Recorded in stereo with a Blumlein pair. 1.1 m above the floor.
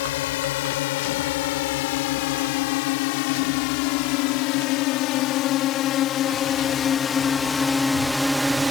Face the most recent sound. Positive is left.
turn(degrees=-5)